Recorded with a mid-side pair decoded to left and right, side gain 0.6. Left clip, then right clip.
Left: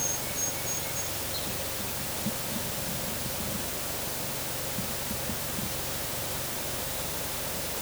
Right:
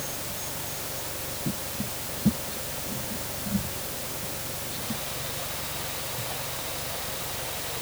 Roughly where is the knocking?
I don't hear knocking.